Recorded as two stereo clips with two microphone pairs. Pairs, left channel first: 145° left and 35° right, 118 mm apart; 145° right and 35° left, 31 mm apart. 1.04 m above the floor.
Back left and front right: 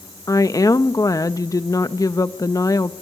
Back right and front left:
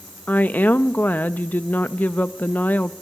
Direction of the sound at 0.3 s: 155° right.